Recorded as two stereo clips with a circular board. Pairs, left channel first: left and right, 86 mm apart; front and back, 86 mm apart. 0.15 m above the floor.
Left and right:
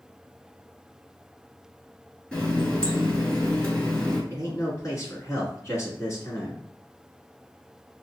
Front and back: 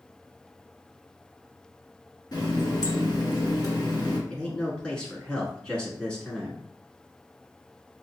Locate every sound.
2.3 s a running tap: 20° left, 1.6 m
4.3 s a man speaking: 70° left, 1.4 m